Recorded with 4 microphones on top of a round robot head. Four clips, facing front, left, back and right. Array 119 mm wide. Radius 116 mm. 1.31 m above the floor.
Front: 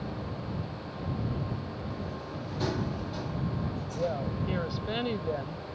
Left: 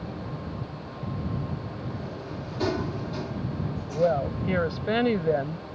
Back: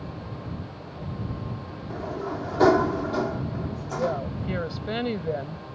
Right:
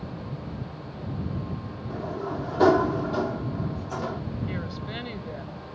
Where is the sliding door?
135° right.